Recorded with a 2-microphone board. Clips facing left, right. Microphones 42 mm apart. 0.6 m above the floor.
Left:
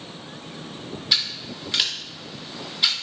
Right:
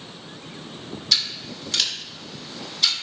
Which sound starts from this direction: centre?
Scissors, at 1.1 s.